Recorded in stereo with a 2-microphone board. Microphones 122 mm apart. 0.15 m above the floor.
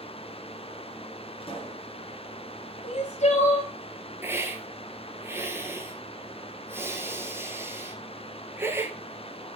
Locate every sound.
1.4 s a pop: 50° left (ahead or behind), 2 m
2.8 s crying: 65° left (ahead or behind), 1.4 m
4.2 s a hiss: 20° right (ahead or behind), 1.1 m